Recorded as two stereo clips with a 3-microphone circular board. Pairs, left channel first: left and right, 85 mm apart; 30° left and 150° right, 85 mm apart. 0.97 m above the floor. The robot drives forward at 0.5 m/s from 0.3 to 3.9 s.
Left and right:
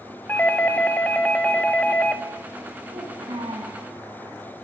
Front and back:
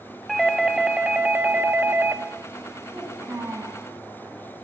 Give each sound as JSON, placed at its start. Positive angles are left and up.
{"t": 0.3, "sound": "a doorbell", "azimuth_deg": 115, "distance_m": 1.2}
{"t": 2.9, "sound": "a child speaking", "azimuth_deg": -85, "distance_m": 4.0}